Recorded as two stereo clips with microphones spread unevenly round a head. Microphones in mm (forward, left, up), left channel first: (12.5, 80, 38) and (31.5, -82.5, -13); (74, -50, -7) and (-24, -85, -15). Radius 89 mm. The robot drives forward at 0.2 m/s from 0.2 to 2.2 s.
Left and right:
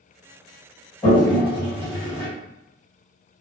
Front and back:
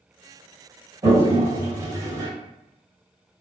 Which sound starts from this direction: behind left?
A toilet flushing, at 1.0 s.